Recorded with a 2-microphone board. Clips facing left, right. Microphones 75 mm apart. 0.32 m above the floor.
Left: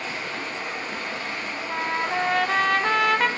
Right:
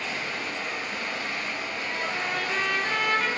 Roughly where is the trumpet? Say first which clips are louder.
Left 9 dB; left.